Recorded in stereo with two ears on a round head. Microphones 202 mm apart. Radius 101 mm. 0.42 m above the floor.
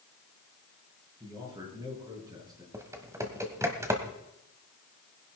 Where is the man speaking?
20° right (ahead or behind), 6 m.